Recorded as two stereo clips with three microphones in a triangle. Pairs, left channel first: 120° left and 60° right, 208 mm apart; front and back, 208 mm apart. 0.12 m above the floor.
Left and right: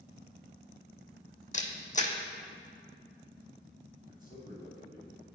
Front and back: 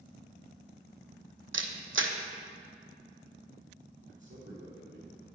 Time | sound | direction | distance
1.5 | a camera shutter | 170° left | 0.8 m
4.1 | a man speaking | 165° left | 3 m